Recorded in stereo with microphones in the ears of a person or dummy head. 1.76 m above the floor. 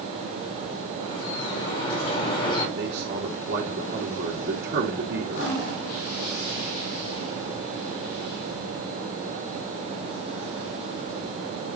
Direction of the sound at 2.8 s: 55° right (ahead or behind).